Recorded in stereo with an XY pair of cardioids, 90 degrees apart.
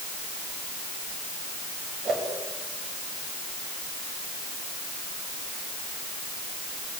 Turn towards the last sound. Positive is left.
turn(degrees=-60)